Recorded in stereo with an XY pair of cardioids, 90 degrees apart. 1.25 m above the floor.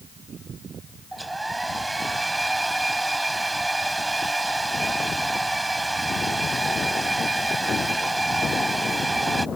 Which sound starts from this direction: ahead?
A hair dryer, at 1.1 s.